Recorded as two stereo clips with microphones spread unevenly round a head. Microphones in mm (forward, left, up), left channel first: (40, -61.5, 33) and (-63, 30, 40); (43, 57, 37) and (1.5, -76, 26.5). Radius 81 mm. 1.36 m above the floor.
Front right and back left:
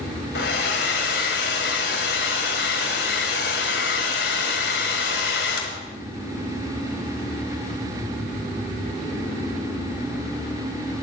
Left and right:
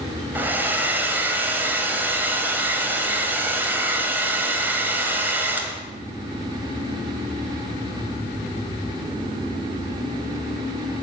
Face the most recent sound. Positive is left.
turn(degrees=-30)